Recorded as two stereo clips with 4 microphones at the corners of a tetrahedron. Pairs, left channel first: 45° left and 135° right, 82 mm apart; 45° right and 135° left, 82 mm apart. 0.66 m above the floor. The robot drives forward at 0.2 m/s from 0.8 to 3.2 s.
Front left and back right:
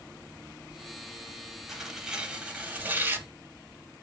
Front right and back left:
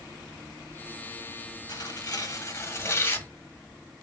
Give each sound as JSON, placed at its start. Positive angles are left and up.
{"t": 1.7, "sound": "tearing paper", "azimuth_deg": -50, "distance_m": 0.6}